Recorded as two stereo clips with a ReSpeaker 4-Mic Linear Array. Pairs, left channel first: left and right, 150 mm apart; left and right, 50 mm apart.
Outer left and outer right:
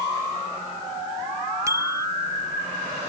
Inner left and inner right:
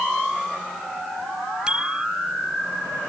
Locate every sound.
1.7 s a bicycle bell: 20° right (ahead or behind)